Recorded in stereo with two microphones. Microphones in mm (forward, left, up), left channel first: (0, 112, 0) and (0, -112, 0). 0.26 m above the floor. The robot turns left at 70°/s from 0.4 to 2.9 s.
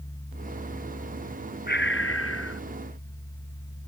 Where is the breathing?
135° left; by 2.6 s 70° left.